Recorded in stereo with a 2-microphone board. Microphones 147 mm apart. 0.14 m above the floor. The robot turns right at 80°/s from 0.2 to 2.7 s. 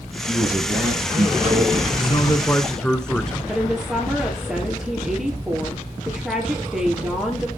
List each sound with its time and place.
0.2 s a man speaking: 165° right, 3.5 m; by 1.9 s 35° right, 3.5 m
2.0 s a man speaking: 115° left, 1.4 m; by 3.4 s 175° left, 1.4 m
3.5 s a woman speaking: centre (ahead or behind), 3.5 m